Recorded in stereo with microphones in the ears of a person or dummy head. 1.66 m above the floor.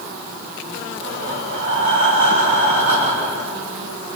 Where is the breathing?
45° right (ahead or behind), 6 m.